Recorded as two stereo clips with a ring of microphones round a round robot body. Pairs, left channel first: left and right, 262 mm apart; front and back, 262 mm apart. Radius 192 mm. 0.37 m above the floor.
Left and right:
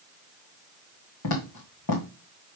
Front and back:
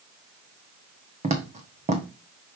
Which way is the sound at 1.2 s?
115° left.